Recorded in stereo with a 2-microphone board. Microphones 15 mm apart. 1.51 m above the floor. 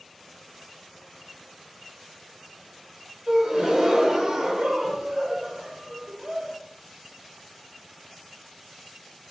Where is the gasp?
55° right (ahead or behind), 1.2 m.